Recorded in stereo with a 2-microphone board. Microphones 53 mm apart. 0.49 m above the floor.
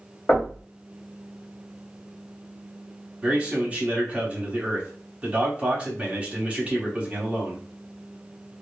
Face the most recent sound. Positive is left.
turn(degrees=-25)  # may be behind; listen again after turning